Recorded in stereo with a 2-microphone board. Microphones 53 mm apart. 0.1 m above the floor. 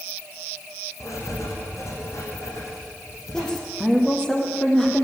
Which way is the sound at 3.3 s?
10° left (ahead or behind).